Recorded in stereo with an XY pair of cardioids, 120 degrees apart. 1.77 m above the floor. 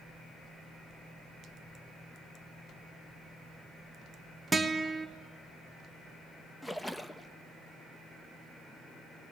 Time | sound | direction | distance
4.5 | a guitar | 15° right | 1.5 m
6.6 | a splash | 5° left | 0.8 m